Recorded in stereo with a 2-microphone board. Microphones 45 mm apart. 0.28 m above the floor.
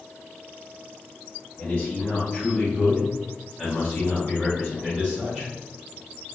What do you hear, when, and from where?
1.6 s a man speaking: 30° left (ahead or behind), 1.7 m; by 5.5 s 20° right (ahead or behind), 3 m